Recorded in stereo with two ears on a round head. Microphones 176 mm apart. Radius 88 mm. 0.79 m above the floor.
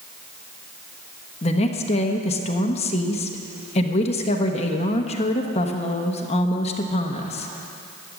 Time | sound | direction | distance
1.4 | a woman speaking | 30° left (ahead or behind) | 1.1 m